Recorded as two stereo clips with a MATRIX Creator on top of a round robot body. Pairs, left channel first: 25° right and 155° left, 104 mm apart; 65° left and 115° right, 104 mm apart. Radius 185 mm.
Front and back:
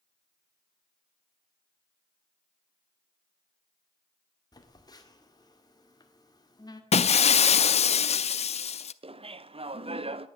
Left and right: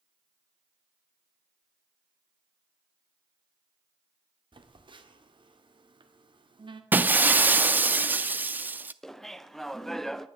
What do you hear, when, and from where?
4.5 s a phone buzzing: 75° right, 2.0 m
6.9 s breaking glass: 40° right, 0.6 m
9.0 s laughter: 155° left, 1.3 m